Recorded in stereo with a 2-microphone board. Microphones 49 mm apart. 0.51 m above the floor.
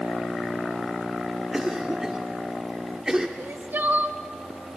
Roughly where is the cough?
Centre.